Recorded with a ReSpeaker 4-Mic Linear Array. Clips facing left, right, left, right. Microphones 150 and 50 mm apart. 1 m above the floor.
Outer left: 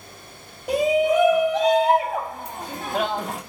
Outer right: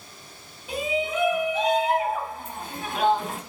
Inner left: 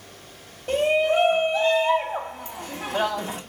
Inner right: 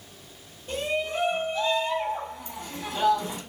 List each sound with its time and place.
0.7 s a shout: 75° left (ahead or behind), 1.8 m